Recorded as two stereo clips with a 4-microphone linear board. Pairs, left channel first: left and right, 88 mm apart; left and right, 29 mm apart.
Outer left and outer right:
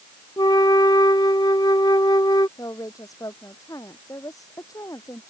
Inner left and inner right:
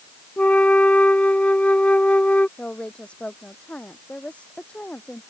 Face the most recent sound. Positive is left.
turn(degrees=40)  # may be behind; listen again after turning